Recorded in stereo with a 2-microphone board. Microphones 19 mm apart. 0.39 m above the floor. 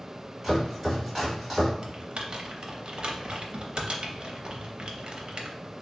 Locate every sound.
0.4 s chopping: 20° right (ahead or behind), 1.8 m
1.8 s typing on a keyboard: 55° right (ahead or behind), 0.6 m